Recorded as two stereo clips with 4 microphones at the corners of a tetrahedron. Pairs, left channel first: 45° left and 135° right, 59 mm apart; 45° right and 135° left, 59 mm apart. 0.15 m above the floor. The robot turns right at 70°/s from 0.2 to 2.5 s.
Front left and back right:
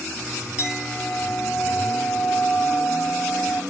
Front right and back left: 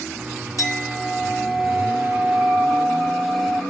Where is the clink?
65° right, 2.5 m; by 3.6 s 70° left, 2.5 m.